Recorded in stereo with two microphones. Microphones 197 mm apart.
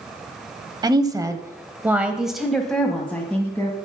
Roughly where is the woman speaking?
Right.